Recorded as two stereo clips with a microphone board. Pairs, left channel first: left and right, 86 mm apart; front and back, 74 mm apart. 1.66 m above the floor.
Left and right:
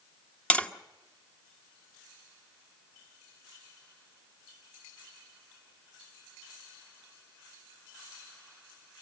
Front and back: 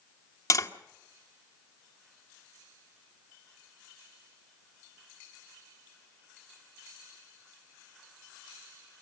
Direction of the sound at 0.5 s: 20° left.